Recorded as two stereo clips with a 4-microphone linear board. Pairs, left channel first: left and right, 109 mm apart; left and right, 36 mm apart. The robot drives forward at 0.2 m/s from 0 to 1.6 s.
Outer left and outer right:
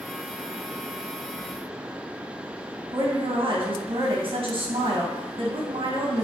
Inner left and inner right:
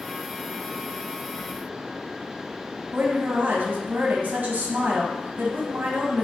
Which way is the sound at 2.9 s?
50° right (ahead or behind).